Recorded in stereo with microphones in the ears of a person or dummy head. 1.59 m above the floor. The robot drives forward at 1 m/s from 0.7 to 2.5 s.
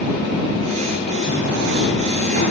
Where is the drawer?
75° right (ahead or behind), 3 m; by 2.5 s 65° right (ahead or behind), 3 m.